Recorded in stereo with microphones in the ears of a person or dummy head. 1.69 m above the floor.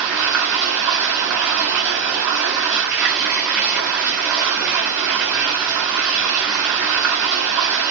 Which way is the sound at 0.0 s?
5° right (ahead or behind).